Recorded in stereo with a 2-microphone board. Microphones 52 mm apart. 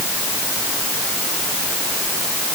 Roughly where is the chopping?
I don't hear chopping.